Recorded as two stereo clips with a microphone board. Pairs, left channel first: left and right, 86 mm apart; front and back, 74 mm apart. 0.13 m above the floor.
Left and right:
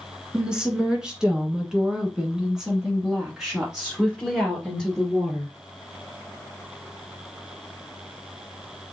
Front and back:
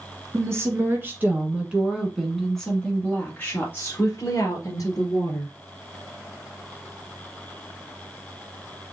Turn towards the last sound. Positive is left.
turn(degrees=-5)